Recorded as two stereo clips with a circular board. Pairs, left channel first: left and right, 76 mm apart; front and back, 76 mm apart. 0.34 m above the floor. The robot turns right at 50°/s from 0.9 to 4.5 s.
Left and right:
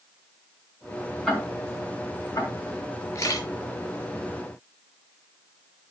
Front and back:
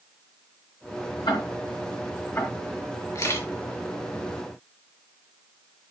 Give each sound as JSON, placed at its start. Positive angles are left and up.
{"t": 1.3, "sound": "ticking", "azimuth_deg": 0, "distance_m": 4.0}
{"t": 3.1, "sound": "a camera shutter", "azimuth_deg": 50, "distance_m": 4.0}